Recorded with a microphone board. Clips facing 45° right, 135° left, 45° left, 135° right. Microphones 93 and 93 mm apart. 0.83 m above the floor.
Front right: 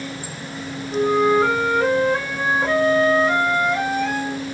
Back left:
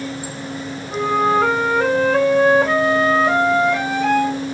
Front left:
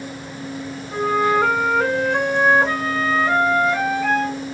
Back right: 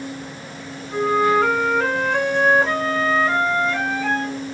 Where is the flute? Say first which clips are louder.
Even, back right 1 dB; 120° left, 1.3 m.